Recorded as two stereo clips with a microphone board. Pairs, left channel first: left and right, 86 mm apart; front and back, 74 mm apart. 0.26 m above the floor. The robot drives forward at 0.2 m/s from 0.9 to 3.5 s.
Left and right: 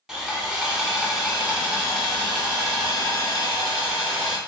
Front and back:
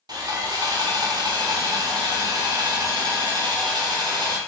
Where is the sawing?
175° right, 0.7 m.